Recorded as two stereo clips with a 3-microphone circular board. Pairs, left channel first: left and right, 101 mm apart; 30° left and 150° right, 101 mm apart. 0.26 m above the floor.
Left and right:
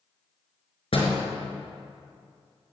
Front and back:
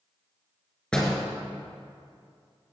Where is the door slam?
110° left, 3 m.